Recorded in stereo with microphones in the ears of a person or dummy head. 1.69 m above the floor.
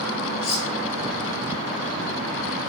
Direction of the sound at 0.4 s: 60° left (ahead or behind).